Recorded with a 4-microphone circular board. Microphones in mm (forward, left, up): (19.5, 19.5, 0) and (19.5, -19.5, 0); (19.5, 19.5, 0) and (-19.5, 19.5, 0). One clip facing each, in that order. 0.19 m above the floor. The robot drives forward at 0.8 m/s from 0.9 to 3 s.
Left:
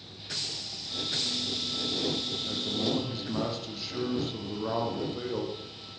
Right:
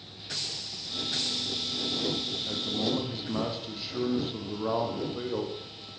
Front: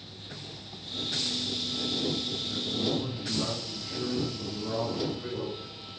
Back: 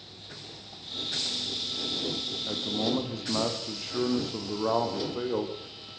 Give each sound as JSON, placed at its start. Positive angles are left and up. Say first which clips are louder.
{"t": 2.5, "sound": "a man speaking", "louder": "right 1 dB, back 2 dB", "azimuth_deg": -170, "distance_m": 5.0}